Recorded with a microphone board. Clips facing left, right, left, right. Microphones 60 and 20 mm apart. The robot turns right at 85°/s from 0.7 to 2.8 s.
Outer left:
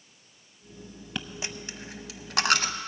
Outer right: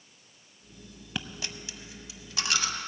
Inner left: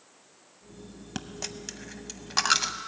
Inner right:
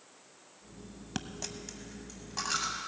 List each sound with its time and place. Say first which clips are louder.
1.1 s a dropped coin: outer left 1 dB, inner left 2 dB; centre (ahead or behind), 0.6 m; by 2.7 s 45° left (ahead or behind), 0.6 m